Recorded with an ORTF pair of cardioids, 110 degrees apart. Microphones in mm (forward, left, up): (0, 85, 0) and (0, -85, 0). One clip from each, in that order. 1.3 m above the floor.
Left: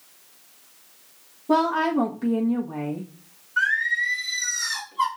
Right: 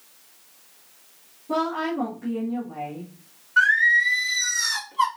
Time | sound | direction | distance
1.5 | a woman speaking | 60° left | 1.4 m
3.6 | singing | 25° right | 1.6 m